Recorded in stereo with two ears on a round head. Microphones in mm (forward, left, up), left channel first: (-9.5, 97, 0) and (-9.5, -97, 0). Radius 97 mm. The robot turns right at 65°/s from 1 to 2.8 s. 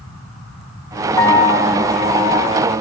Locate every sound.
1.2 s a piano: 15° left, 6 m; by 2.5 s 105° left, 6 m